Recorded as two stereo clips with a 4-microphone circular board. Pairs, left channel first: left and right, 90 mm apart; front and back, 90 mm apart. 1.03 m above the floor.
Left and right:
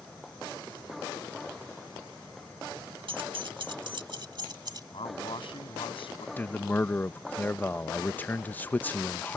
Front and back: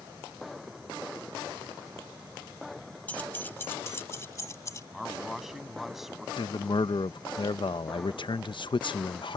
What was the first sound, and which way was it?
Keys jangling, 75° right.